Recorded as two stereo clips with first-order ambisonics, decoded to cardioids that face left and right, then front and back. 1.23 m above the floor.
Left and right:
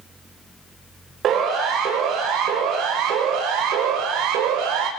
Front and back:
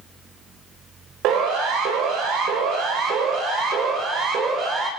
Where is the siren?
145° right, 7.5 m; by 4.9 s 125° right, 7 m.